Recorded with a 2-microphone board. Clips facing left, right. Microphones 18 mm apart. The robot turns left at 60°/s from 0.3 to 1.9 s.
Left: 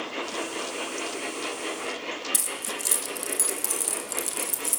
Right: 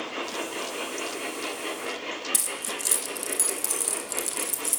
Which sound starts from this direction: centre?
Keys jangling, at 2.3 s.